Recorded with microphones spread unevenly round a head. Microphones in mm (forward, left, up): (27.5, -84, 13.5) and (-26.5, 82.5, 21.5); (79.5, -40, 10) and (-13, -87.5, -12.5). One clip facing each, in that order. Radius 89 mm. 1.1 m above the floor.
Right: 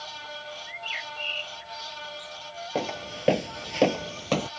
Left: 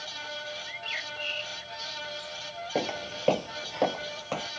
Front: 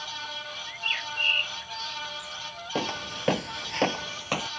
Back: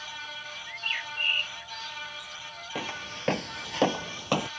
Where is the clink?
I don't hear a clink.